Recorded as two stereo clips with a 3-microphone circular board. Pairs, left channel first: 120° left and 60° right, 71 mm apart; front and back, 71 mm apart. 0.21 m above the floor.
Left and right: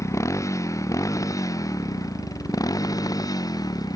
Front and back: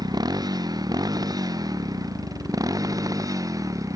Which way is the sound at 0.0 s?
165° left.